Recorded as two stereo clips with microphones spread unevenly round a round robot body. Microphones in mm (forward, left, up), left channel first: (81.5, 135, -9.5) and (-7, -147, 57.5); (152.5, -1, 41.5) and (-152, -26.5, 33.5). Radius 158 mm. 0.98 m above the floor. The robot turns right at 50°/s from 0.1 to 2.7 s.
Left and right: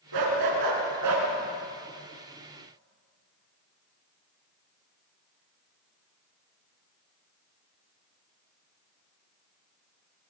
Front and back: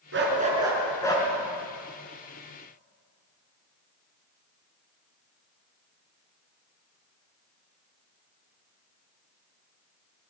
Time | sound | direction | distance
0.1 | a dog barking | 125° right | 5.5 m